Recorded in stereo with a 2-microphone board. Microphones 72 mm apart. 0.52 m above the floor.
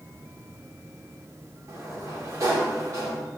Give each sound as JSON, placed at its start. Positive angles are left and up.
{"t": 1.7, "sound": "a sliding door", "side_deg": -45, "distance_m": 1.0}